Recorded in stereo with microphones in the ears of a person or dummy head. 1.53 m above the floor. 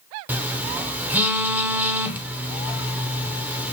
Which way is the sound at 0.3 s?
10° right (ahead or behind).